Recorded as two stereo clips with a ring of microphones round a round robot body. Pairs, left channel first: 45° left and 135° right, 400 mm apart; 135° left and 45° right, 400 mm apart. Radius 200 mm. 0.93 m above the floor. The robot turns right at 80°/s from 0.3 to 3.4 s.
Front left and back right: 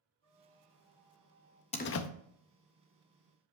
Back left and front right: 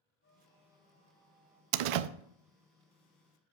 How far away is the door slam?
About 0.5 m.